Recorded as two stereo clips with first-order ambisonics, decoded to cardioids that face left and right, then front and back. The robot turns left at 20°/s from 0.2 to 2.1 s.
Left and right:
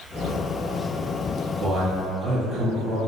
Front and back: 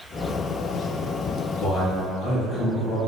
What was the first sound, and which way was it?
A man speaking, 35° right.